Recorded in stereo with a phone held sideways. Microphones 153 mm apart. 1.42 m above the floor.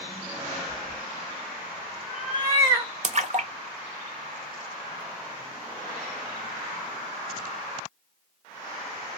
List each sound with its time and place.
0.7 s a cat meowing: 20° left (ahead or behind), 1.5 m; by 2.9 s 25° right (ahead or behind), 1.4 m
3.0 s a splash: 50° right (ahead or behind), 0.5 m